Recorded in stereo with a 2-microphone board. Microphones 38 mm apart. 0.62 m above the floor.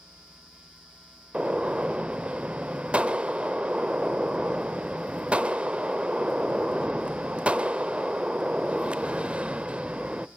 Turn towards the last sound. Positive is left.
turn(degrees=-30)  # may be behind; listen again after turning